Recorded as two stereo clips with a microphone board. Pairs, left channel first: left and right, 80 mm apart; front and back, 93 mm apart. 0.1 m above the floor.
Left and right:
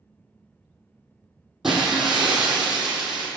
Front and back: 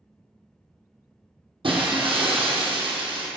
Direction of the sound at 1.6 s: 175° right.